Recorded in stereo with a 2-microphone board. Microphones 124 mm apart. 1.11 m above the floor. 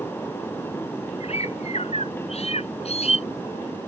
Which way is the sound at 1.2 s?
55° left (ahead or behind).